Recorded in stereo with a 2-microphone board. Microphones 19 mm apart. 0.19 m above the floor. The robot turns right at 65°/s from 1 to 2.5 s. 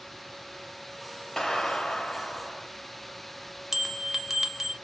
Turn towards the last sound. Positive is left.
turn(degrees=-15)  # may be behind; listen again after turning